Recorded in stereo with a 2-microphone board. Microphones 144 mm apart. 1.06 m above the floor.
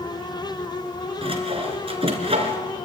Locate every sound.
1.2 s sawing: 40° right (ahead or behind), 3 m